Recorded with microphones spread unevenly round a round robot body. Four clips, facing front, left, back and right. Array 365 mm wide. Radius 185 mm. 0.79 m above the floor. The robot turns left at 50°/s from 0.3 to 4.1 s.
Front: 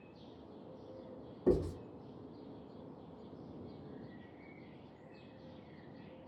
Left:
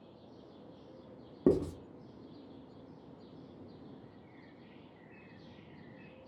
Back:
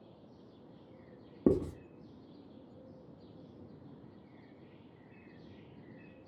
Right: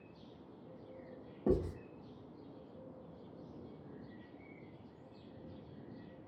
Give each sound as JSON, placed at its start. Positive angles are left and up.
{"t": 1.5, "sound": "writing", "azimuth_deg": 145, "distance_m": 0.7}